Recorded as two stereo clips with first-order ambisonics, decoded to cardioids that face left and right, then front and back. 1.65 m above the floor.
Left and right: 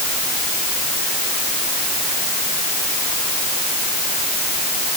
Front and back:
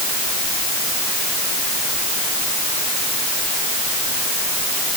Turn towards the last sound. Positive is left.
No sound to turn to.